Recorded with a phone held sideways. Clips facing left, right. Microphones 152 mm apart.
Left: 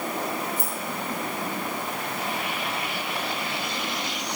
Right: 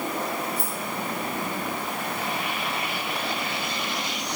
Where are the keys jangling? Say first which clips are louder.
Even; 85° right, 3.5 m.